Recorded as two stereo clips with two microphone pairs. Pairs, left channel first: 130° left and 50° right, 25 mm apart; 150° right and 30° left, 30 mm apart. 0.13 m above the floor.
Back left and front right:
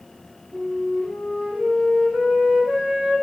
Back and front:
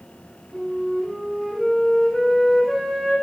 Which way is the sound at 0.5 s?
55° right.